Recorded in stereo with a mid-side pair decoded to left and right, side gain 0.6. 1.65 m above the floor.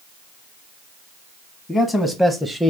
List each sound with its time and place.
1.7 s a man speaking: 20° left, 0.9 m; by 2.7 s 10° right, 0.5 m